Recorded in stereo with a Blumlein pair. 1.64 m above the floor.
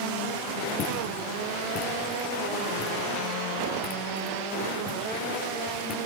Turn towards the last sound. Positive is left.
turn(degrees=30)